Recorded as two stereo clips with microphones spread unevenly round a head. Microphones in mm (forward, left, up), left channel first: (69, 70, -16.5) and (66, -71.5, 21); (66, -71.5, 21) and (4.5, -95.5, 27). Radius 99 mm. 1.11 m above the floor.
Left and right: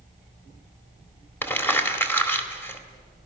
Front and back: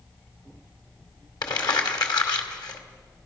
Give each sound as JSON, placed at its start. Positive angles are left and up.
{"t": 1.4, "sound": "crumpling", "azimuth_deg": 10, "distance_m": 2.5}